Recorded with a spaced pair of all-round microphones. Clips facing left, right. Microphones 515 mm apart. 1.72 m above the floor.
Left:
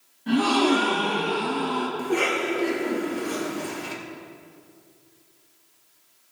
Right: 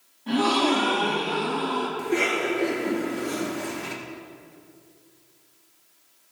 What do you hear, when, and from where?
0.3 s a gasp: 35° left (ahead or behind), 1.3 m
2.0 s a cough: 40° right (ahead or behind), 1.3 m